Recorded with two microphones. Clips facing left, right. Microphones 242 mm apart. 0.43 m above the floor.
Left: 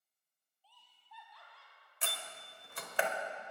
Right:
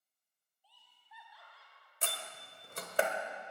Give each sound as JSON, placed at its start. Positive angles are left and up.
{"t": 0.6, "sound": "laughter", "side_deg": -15, "distance_m": 3.0}
{"t": 2.0, "sound": "a door slam", "side_deg": -45, "distance_m": 1.3}